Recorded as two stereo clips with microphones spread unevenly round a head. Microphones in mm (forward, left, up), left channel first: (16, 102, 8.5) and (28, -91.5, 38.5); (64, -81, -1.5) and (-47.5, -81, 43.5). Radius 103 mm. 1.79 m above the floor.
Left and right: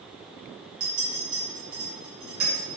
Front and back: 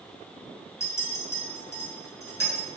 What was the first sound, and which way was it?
A clink, 75° right.